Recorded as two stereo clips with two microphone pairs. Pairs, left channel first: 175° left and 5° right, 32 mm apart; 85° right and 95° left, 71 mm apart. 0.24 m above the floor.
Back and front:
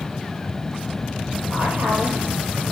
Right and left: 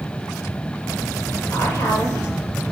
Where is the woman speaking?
40° right, 5.5 m.